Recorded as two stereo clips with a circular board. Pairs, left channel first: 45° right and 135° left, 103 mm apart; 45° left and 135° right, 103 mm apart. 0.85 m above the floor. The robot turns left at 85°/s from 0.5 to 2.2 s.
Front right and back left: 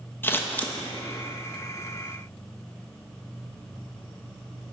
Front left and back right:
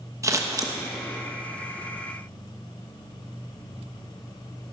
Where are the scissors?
100° right, 1.1 m; by 0.7 s 120° right, 1.1 m.